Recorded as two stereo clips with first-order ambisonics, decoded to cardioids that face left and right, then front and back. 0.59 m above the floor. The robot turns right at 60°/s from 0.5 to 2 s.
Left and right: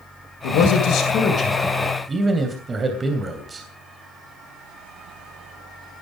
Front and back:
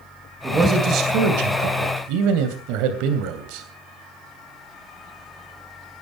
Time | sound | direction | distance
0.4 | a man speaking | 105° left | 2.5 m